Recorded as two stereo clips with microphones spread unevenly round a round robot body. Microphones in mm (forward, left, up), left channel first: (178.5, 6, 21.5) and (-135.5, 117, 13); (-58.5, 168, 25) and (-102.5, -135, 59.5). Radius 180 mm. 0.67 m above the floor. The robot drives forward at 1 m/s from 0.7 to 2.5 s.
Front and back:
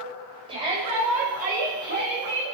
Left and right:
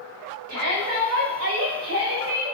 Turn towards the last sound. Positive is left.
turn(degrees=-145)